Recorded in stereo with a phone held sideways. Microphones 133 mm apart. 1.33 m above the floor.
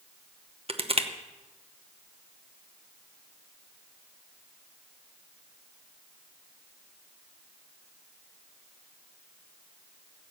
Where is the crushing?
45° right (ahead or behind), 0.8 m.